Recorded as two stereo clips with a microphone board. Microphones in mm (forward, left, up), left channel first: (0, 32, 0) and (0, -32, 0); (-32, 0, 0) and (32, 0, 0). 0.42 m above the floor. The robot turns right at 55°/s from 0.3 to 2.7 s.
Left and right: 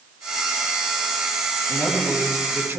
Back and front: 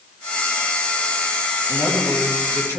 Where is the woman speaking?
165° left, 3 m; by 2.8 s 140° right, 3 m.